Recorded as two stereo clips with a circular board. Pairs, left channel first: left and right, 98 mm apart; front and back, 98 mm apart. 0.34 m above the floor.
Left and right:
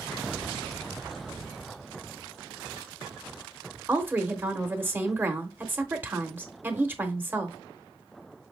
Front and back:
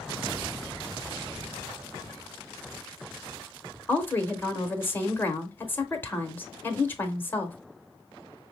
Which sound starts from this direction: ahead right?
A woman speaking, at 3.9 s.